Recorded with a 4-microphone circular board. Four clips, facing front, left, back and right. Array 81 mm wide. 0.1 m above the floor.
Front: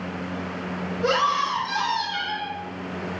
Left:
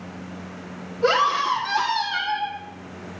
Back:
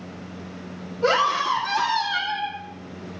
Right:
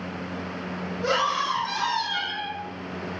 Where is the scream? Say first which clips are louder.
Left 5 dB, back 2 dB; 140° left, 3 m.